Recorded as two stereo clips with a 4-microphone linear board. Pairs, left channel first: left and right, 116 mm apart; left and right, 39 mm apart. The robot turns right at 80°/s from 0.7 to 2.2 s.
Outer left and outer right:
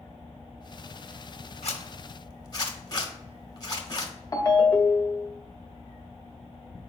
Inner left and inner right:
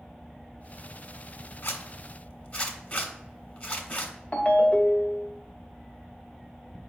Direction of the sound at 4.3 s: 25° left (ahead or behind).